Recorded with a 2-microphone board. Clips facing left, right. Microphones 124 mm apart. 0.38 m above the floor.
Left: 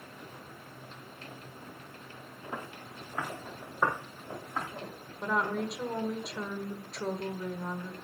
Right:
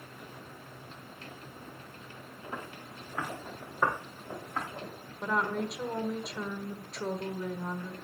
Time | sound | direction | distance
2.5 | footsteps | 10° left (ahead or behind) | 4 m
5.2 | a woman speaking | centre (ahead or behind) | 1.3 m